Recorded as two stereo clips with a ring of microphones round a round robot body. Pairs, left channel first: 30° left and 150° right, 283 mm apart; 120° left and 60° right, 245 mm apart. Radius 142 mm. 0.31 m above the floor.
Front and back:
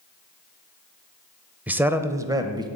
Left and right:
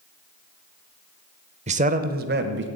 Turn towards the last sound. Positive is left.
turn(degrees=-80)